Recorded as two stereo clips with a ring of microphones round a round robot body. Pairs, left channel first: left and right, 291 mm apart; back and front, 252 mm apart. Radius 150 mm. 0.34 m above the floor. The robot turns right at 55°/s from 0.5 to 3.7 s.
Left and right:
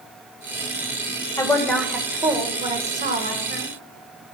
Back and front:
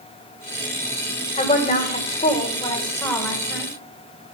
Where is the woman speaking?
155° left, 1.5 m; by 3.7 s 75° right, 1.5 m.